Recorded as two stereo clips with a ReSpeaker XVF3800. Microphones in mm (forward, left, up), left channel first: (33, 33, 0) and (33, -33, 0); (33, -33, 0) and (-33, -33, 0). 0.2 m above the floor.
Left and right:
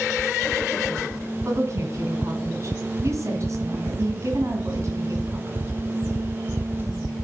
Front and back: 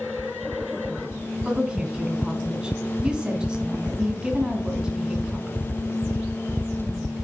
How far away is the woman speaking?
About 1.7 m.